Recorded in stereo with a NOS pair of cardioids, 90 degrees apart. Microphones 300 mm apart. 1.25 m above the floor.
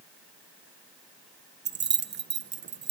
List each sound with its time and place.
1.6 s keys jangling: 35° right, 1.0 m